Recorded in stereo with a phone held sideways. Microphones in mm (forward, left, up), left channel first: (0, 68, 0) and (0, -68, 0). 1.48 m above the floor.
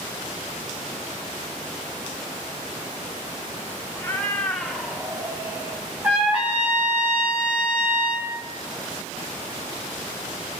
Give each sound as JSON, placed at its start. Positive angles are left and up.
{"t": 4.0, "sound": "a cat meowing", "side_deg": 20, "distance_m": 1.2}
{"t": 6.0, "sound": "a trumpet", "side_deg": -10, "distance_m": 3.0}